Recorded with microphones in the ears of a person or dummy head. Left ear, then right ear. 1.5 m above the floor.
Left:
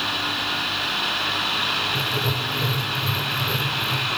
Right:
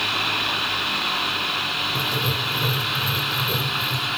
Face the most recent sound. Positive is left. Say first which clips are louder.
# right 1 dB
turn(degrees=0)  # may be behind; listen again after turning